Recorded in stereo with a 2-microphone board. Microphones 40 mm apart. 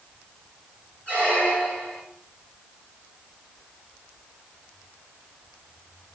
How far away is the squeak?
About 2 m.